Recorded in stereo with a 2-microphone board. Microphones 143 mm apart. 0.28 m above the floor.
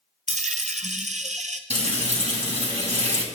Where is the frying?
55° right (ahead or behind), 2.5 m.